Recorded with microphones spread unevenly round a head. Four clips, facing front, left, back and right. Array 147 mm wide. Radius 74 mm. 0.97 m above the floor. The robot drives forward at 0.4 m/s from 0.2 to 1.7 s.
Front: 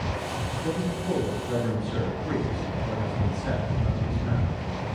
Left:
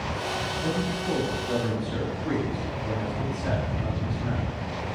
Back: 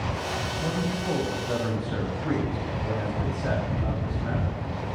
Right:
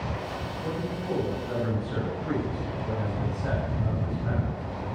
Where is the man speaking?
175° right, 6.5 m.